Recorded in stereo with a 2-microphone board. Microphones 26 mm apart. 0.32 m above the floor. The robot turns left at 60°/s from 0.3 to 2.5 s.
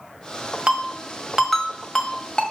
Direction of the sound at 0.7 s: 45° right (ahead or behind).